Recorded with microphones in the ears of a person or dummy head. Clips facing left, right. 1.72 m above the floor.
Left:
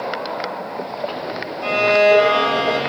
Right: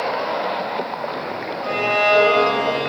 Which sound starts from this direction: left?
A violin, at 1.6 s.